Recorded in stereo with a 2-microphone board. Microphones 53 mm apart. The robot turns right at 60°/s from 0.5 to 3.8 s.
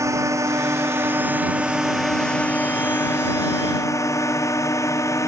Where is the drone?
75° right (ahead or behind); by 5.3 s 80° left.